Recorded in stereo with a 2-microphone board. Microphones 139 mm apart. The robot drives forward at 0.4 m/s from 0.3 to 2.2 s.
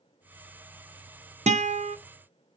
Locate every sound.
1.5 s a guitar: 50° right (ahead or behind), 0.6 m; by 2.0 s 45° right (ahead or behind), 0.6 m